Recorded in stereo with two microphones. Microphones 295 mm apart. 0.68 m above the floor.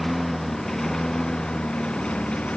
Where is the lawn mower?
Centre (ahead or behind); by 2.6 s 5° left (ahead or behind).